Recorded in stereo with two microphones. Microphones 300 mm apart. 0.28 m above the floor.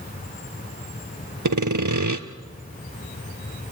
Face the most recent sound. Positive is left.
turn(degrees=-80)